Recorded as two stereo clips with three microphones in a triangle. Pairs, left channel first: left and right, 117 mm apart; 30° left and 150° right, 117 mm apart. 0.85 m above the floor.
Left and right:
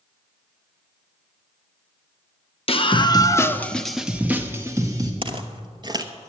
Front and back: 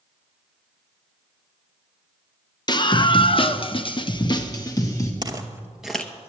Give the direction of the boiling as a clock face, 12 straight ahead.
No boiling in this recording.